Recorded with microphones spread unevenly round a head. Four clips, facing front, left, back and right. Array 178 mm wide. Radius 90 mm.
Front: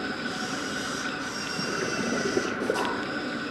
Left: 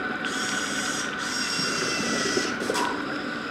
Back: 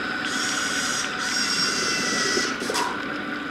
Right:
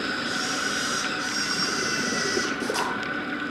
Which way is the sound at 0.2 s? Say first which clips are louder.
Right 1 dB, back 4 dB; straight behind.